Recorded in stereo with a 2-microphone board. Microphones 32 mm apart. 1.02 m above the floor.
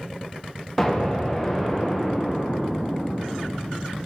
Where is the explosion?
10° left (ahead or behind), 0.8 m.